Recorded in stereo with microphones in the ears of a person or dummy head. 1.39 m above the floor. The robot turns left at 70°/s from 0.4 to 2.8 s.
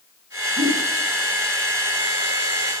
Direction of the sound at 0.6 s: 25° right (ahead or behind).